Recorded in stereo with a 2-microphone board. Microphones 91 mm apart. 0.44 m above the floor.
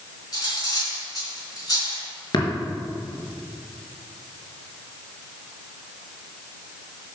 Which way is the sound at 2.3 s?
50° left (ahead or behind).